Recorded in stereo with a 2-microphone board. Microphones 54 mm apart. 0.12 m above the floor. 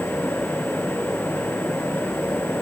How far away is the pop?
No pop in this recording.